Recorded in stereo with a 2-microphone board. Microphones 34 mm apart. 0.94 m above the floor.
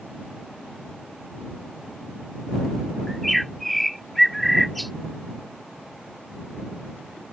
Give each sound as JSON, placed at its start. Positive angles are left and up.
{"t": 3.1, "sound": "a bird", "side_deg": 0}